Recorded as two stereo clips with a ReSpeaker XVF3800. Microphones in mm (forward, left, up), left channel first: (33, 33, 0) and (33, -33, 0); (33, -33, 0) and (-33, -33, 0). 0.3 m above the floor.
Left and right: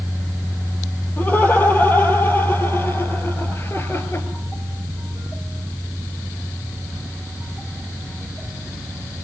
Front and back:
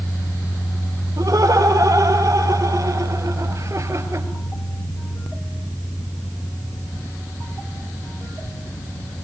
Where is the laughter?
150° left, 9 m; by 4.3 s 140° left, 4.5 m.